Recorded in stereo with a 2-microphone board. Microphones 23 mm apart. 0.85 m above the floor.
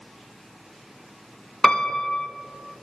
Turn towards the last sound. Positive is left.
turn(degrees=55)  # may be behind; listen again after turning